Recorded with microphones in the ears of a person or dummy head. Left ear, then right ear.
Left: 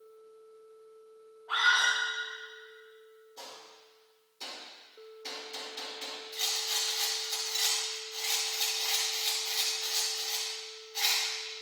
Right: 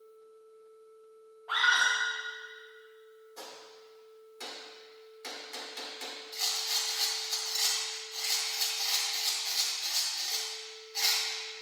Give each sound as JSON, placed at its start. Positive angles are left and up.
{"t": 1.5, "sound": "a scream", "side_deg": -40, "distance_m": 2.5}
{"t": 3.4, "sound": "a gunshot", "side_deg": -55, "distance_m": 2.0}
{"t": 6.3, "sound": "a rattle", "side_deg": -15, "distance_m": 2.5}